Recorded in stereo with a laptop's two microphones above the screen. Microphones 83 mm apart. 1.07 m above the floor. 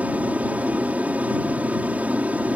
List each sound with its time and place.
0.0 s an aircraft: 15° right (ahead or behind)